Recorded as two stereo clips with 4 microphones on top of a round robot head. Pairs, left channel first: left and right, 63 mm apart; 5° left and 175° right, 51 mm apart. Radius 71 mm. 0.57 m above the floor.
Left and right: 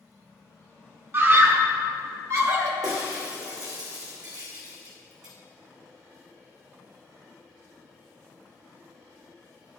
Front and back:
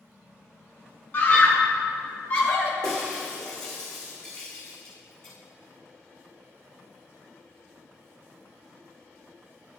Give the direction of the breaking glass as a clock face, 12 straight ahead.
2 o'clock.